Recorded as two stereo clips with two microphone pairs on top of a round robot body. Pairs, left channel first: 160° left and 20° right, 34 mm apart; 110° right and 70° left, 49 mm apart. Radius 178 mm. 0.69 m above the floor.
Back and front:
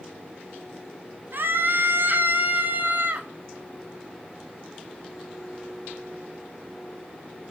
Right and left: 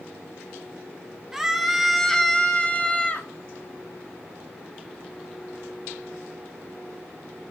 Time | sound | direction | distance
1.3 | a scream | 15° right | 2 m